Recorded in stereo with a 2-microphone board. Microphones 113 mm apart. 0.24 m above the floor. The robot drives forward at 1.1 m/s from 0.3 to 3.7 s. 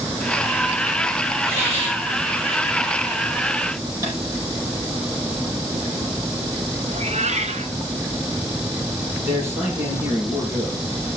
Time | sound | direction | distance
1.5 | a hiss | 55° right (ahead or behind) | 5 m
4.0 | tapping | 30° right (ahead or behind) | 6.5 m
6.9 | a cat meowing | 75° right (ahead or behind) | 1.3 m
9.2 | a man speaking | 25° right (ahead or behind) | 5.5 m